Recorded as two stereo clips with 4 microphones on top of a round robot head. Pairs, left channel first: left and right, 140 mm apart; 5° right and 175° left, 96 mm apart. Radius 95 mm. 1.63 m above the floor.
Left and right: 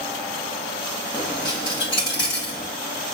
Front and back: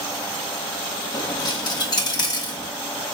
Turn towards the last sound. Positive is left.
turn(degrees=25)